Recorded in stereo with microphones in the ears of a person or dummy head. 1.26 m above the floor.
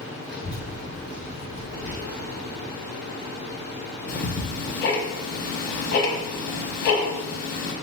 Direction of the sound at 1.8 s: 30° right (ahead or behind).